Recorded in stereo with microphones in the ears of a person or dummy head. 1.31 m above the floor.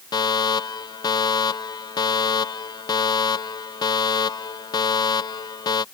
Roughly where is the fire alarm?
Left.